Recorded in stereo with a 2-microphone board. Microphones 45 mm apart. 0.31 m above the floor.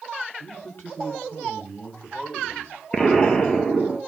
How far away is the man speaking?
About 2 m.